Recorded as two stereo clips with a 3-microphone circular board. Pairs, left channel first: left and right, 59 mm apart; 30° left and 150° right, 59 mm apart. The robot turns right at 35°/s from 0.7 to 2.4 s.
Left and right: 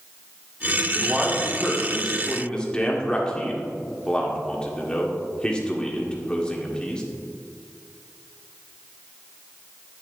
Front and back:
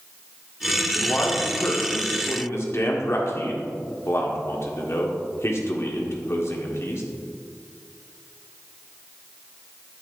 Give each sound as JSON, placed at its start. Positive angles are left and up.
{"t": 0.9, "sound": "a man speaking", "azimuth_deg": -30, "distance_m": 1.7}